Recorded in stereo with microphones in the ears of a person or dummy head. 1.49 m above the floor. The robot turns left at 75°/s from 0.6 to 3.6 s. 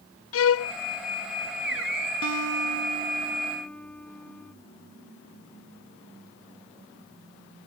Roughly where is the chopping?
No chopping in this recording.